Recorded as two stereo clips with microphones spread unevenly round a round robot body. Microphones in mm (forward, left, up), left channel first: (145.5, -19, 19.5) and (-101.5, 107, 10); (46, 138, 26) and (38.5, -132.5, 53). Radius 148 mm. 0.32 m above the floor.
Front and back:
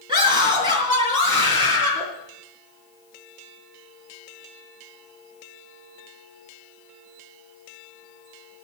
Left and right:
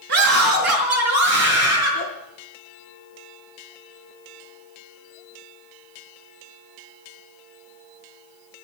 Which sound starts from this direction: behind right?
A scream, at 0.1 s.